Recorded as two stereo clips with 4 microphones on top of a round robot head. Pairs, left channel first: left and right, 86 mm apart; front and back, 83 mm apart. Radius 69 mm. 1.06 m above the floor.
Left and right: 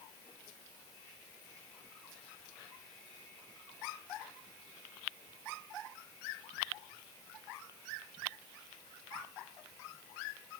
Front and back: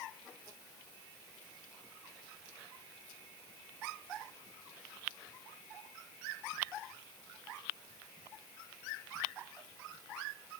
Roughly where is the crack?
No crack in this recording.